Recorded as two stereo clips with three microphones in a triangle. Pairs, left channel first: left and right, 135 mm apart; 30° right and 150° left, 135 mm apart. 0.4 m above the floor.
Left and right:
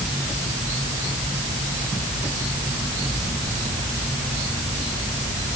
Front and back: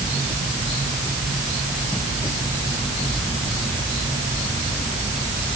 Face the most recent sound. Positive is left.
No sound to turn to.